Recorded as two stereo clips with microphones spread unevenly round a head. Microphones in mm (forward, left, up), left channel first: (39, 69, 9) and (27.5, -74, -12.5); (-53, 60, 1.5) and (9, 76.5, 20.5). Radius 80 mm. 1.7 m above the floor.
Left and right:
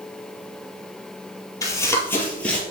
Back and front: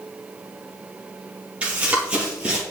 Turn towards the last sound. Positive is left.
turn(degrees=20)